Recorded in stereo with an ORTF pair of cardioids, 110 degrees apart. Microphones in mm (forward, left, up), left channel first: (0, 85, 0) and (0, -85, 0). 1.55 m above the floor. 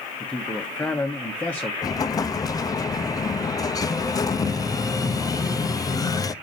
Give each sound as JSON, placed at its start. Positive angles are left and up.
{"t": 0.2, "sound": "a man speaking", "azimuth_deg": 10, "distance_m": 1.0}
{"t": 1.8, "sound": "an explosion", "azimuth_deg": 20, "distance_m": 0.5}